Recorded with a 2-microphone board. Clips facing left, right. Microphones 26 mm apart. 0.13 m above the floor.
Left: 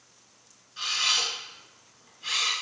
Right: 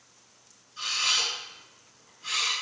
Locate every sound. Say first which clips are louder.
0.8 s a camera shutter: left 1 dB; 25° left (ahead or behind), 1.0 m